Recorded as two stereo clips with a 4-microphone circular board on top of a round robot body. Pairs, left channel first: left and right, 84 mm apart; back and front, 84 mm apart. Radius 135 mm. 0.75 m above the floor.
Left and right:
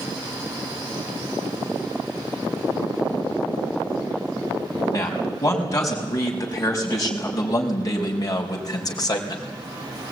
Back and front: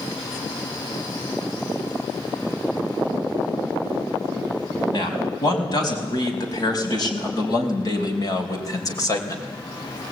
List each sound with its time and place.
4.9 s a man speaking: 140° left, 5.5 m; by 9.4 s 130° left, 3 m